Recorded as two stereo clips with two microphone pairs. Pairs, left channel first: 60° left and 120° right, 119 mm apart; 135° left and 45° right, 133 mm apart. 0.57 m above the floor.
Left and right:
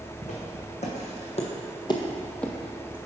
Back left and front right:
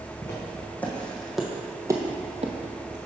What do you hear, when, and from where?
0.2 s footsteps: 65° left, 2 m; by 3.0 s 45° right, 1.2 m